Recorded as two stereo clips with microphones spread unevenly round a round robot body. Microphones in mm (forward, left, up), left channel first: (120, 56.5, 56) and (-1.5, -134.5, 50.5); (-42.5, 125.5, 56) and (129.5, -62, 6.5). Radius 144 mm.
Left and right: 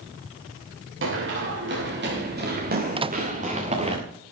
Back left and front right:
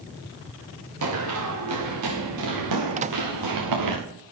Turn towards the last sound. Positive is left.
turn(degrees=-70)